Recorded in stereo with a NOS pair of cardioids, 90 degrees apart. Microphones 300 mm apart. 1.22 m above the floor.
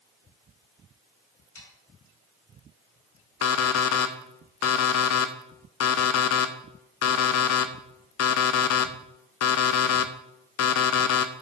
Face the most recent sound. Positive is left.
turn(degrees=55)